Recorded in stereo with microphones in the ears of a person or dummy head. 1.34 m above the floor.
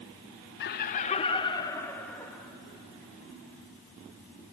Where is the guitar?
No guitar in this recording.